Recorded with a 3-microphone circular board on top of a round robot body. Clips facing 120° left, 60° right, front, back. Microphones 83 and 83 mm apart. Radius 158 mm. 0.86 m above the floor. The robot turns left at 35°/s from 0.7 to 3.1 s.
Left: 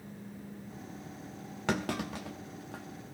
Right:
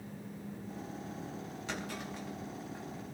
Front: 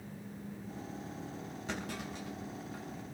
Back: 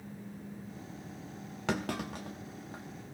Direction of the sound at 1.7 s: 155° left.